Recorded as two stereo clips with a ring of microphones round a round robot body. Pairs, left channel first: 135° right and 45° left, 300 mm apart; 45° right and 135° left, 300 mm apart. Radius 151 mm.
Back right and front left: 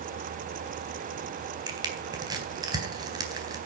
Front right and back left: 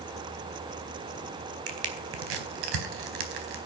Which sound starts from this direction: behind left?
Crushing, at 1.7 s.